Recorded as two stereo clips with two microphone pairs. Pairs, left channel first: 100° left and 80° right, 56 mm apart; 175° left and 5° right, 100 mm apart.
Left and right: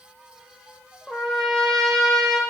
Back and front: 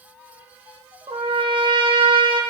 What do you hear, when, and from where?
1.1 s a trumpet: 20° left, 1.2 m